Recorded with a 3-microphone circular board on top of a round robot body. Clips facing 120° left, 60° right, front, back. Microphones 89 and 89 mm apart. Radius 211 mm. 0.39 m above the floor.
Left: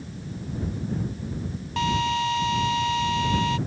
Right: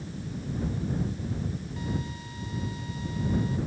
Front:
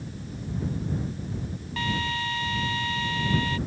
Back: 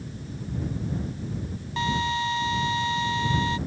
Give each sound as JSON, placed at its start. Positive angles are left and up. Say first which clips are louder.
{"t": 1.8, "sound": "a drill", "louder": "left 15 dB, back 4 dB", "azimuth_deg": 110}